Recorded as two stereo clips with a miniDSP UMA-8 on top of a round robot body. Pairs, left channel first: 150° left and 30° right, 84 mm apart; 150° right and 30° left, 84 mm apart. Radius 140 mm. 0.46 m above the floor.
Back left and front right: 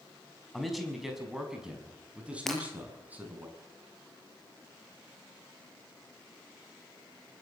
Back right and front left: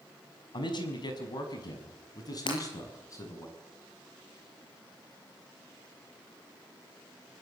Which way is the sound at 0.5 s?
120° right.